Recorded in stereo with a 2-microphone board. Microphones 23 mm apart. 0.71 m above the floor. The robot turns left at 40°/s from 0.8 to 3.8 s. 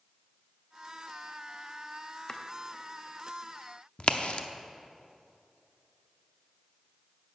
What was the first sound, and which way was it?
Chopping, 35° left (ahead or behind).